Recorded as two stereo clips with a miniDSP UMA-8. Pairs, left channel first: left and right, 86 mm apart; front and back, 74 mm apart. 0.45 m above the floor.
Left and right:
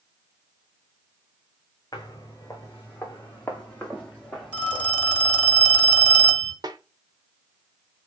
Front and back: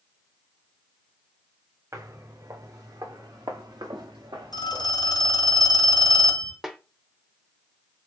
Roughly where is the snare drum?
Right.